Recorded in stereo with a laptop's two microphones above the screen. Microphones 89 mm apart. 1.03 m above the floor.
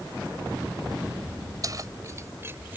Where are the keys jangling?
45° right (ahead or behind); by 2.8 s 20° right (ahead or behind).